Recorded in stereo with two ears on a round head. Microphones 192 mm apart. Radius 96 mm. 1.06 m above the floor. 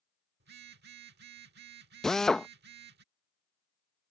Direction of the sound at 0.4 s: 55° right (ahead or behind).